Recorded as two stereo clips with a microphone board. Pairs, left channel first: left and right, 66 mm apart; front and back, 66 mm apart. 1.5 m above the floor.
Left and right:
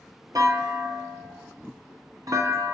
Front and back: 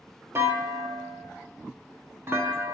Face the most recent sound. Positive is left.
turn(degrees=-125)